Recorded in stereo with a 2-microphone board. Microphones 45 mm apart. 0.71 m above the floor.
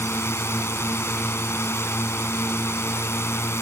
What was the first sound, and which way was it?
A drone, 75° left (ahead or behind).